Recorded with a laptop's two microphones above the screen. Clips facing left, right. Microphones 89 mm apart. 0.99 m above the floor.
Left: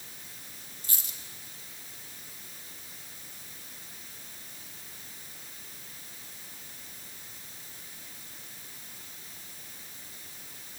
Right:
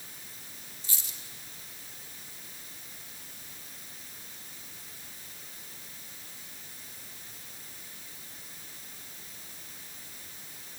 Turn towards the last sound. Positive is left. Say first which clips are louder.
# left 1 dB
turn(degrees=50)  # may be behind; listen again after turning